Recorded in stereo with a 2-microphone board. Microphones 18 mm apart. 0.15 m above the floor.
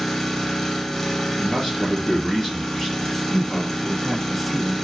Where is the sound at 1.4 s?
20° left (ahead or behind), 3.5 m.